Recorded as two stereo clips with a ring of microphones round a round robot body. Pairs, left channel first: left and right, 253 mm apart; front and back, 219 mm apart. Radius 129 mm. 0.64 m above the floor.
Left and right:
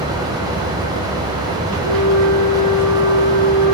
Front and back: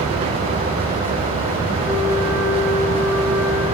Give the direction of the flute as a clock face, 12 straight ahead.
3 o'clock.